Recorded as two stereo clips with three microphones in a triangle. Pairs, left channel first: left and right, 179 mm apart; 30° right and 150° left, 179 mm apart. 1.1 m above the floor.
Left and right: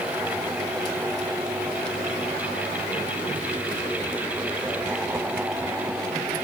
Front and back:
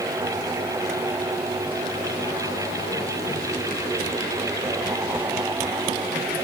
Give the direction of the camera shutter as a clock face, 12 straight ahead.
I don't hear a camera shutter.